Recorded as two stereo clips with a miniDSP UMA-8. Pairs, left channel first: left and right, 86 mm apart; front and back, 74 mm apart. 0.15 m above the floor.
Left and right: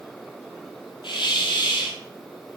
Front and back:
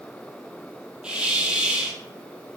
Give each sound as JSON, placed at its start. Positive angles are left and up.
{"t": 1.0, "sound": "a hiss", "azimuth_deg": 105, "distance_m": 1.3}